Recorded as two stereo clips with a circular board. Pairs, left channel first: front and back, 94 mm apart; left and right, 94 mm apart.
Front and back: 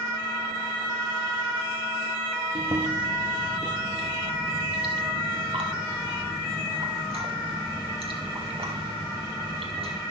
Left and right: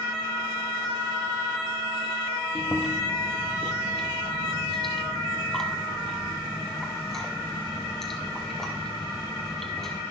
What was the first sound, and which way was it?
Chewing, 175° left.